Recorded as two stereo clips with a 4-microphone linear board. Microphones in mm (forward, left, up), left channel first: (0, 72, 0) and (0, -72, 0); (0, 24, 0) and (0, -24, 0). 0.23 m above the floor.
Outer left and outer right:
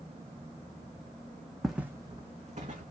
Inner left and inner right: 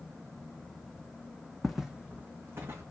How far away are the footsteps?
About 0.8 m.